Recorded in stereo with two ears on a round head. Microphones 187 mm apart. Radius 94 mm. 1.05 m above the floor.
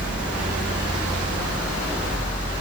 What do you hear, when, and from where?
Only background noise.